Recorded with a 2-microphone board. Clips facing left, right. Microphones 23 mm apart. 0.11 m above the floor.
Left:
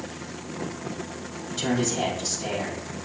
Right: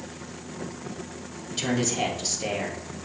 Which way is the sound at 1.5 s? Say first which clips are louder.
Left 1 dB; 35° right (ahead or behind).